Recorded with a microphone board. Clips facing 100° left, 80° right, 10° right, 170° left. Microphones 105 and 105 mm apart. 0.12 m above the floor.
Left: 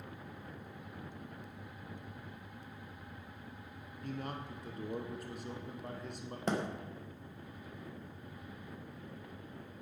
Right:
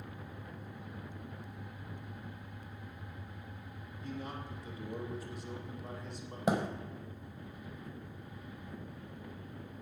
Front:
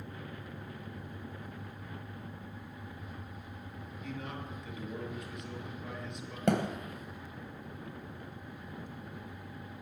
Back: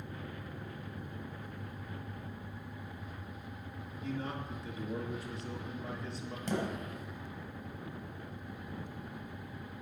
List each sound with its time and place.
4.0 s a man speaking: 115° left, 3 m
6.5 s a thud: straight ahead, 1.7 m